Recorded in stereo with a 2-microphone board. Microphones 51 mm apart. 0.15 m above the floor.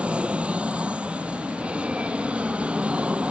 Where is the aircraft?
25° right (ahead or behind).